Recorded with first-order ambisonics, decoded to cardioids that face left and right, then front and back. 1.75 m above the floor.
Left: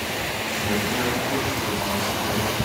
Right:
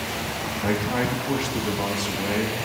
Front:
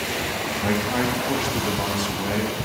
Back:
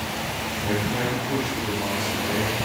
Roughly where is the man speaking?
Ahead right.